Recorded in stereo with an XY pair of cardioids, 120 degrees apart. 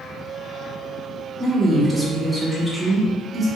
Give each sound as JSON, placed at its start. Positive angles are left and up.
{"t": 1.4, "sound": "a woman speaking", "azimuth_deg": -20, "distance_m": 1.3}